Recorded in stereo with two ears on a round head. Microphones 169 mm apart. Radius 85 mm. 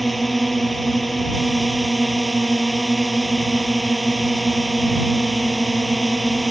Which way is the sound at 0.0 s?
Centre (ahead or behind).